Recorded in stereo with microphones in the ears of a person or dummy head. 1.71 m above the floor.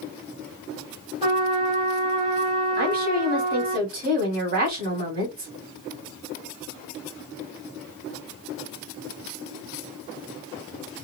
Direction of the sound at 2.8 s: 50° right (ahead or behind).